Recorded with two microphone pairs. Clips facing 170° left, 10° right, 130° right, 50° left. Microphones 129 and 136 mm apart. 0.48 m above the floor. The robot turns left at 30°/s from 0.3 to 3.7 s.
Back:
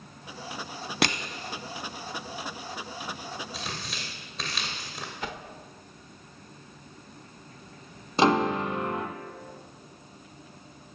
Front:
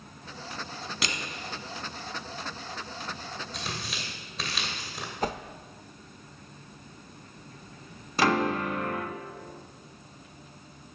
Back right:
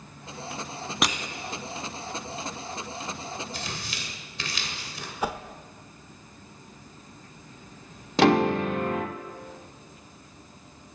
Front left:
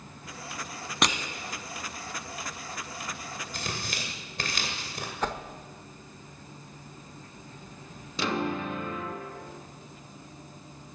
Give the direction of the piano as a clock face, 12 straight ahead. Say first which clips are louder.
Back 3 dB, back right 10 dB; 4 o'clock.